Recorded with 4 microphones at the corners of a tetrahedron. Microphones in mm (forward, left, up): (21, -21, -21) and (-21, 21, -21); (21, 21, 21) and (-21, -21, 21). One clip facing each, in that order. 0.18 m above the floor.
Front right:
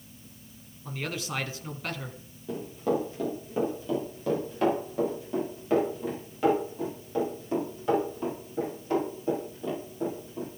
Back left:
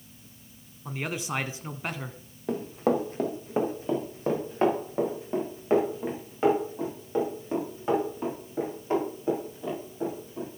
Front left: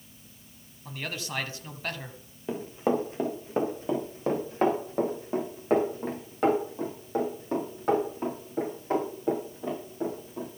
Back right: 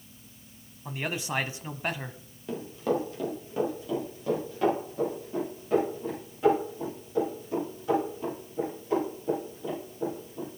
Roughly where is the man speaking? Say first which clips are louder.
Back left 2 dB, back right 4 dB; behind.